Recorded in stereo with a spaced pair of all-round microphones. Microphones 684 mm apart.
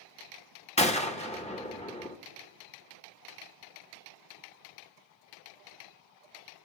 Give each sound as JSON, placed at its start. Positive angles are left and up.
{"t": 0.8, "sound": "a gunshot", "side_deg": 10, "distance_m": 0.6}